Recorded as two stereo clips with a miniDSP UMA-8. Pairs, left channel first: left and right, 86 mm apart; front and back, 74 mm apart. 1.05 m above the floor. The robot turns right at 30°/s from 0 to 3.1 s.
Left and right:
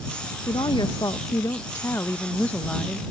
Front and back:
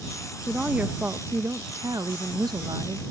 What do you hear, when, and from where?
0.5 s a woman speaking: 105° left; by 3.0 s straight behind